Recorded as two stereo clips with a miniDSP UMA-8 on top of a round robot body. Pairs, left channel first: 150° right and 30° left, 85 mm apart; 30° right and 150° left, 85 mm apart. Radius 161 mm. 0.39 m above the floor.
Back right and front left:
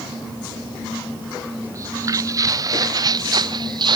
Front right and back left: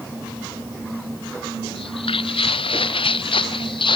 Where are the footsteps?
25° right; by 4.0 s 5° right.